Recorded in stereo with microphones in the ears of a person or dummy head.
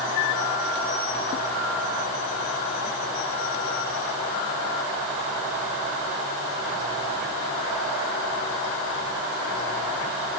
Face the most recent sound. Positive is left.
No sound to turn to.